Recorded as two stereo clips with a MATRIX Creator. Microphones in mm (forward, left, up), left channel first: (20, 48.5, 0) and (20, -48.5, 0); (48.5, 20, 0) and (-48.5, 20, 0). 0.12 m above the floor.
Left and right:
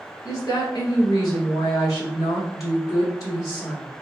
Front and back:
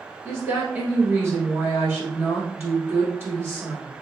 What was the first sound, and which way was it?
A woman speaking, 125° left.